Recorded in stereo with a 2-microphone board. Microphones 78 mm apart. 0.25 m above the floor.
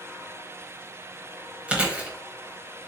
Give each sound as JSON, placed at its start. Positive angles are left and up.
{"t": 1.7, "sound": "chewing", "side_deg": -15, "distance_m": 1.0}